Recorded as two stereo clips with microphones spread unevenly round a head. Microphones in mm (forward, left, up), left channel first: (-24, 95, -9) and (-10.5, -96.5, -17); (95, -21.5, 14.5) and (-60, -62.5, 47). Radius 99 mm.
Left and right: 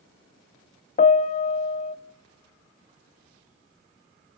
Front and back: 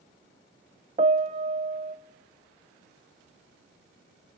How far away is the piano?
About 0.6 m.